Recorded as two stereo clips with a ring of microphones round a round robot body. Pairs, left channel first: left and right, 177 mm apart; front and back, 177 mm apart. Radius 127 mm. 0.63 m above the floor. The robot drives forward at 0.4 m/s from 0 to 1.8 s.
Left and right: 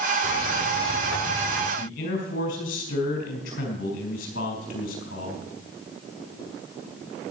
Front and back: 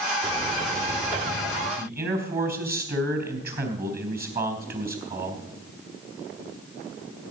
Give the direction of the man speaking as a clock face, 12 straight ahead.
7 o'clock.